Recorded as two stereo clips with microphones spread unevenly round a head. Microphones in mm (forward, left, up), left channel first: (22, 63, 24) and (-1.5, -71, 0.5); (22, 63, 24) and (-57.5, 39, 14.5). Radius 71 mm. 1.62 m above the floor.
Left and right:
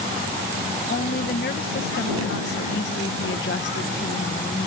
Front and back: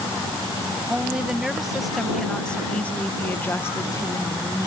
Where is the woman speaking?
120° left; by 4.7 s 65° left.